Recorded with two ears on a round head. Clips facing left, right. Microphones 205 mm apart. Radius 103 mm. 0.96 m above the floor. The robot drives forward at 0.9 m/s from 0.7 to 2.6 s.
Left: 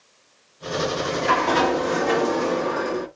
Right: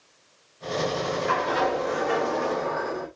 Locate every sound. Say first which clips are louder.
0.8 s a sliding door: left 4 dB; 65° left (ahead or behind), 1.5 m; by 3.1 s 45° left (ahead or behind), 1.9 m